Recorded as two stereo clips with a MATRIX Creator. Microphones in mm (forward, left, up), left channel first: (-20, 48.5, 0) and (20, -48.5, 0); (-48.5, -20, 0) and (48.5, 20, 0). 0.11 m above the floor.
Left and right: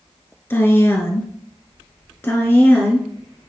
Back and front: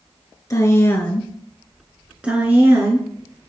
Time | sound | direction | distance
0.5 | a woman speaking | 170° left | 1.3 m